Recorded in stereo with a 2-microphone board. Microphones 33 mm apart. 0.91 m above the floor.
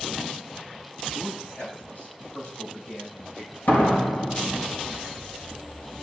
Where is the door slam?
80° left, 4 m.